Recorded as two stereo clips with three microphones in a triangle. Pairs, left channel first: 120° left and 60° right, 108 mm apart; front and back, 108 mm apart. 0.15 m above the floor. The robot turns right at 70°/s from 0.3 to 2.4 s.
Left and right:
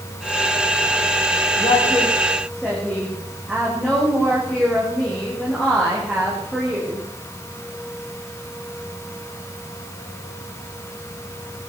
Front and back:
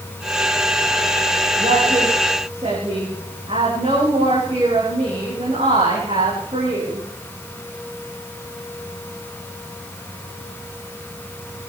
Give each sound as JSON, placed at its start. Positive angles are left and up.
{"t": 1.6, "sound": "a woman speaking", "azimuth_deg": 150, "distance_m": 10.0}